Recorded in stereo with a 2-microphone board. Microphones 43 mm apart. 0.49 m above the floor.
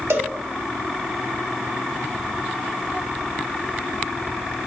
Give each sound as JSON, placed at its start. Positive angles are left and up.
{"t": 0.1, "sound": "a cowbell", "side_deg": -80, "distance_m": 0.9}